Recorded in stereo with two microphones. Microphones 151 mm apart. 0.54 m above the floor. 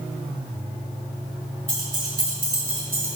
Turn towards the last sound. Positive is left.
turn(degrees=-80)